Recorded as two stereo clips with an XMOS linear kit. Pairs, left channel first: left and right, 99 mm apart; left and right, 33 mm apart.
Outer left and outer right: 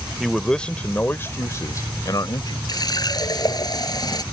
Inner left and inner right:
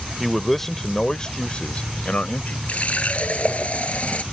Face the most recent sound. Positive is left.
turn(degrees=45)  # may be behind; listen again after turning